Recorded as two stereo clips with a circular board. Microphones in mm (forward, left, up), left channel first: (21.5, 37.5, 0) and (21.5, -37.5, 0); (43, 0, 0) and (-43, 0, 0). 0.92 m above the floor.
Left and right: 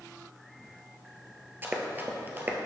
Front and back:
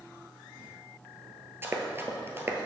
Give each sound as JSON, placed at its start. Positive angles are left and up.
{"t": 1.6, "sound": "running footsteps", "azimuth_deg": -135, "distance_m": 1.1}